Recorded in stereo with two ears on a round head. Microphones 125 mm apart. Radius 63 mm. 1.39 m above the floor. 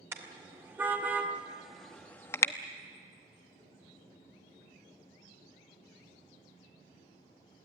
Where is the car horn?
20° right (ahead or behind), 2 m; by 2.5 s 25° left (ahead or behind), 0.8 m.